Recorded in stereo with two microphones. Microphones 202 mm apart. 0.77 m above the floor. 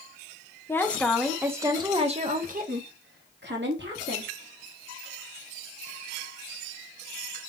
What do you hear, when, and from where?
0.7 s a woman speaking: 10° left (ahead or behind), 1.0 m; by 4.3 s 70° right (ahead or behind), 1.6 m